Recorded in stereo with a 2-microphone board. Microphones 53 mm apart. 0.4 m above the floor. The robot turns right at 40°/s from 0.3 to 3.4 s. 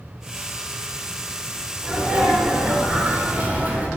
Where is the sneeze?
15° right (ahead or behind), 1.0 m; by 3.9 s 30° right (ahead or behind), 1.0 m.